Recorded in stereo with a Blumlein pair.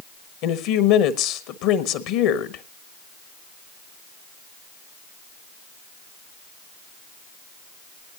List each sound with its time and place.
0.4 s a woman speaking: 40° left, 1.2 m